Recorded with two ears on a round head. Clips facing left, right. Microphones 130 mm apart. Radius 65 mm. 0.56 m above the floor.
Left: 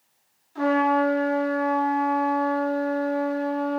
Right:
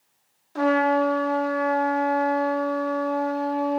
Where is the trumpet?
70° right (ahead or behind), 0.5 m.